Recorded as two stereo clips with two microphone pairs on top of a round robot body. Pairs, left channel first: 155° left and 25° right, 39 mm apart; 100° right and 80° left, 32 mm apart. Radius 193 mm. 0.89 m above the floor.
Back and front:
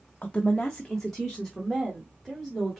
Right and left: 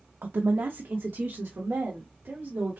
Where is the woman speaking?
95° left, 0.7 m; by 2.8 s 55° left, 2.5 m.